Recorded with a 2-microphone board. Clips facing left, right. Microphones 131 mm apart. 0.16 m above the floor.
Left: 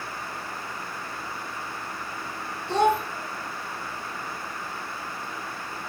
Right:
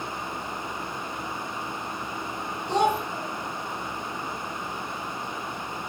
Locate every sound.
2.7 s a child speaking: 15° right (ahead or behind), 0.7 m